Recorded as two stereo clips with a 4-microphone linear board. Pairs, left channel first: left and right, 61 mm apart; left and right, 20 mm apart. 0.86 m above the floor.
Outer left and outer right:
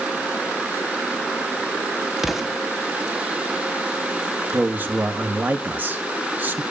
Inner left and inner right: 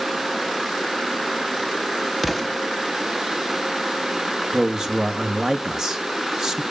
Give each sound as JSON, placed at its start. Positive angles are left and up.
{"t": 2.2, "sound": "an explosion", "side_deg": -5, "distance_m": 1.2}
{"t": 4.5, "sound": "a man speaking", "side_deg": -30, "distance_m": 1.8}